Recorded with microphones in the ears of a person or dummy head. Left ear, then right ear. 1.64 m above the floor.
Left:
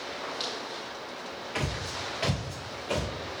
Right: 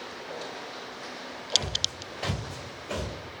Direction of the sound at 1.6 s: 35° left (ahead or behind).